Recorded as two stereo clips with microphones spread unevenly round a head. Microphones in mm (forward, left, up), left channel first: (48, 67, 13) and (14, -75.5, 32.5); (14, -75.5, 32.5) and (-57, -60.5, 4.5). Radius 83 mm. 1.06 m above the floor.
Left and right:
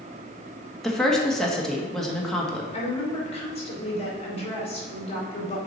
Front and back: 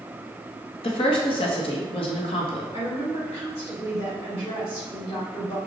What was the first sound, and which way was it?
A woman speaking, 5° right.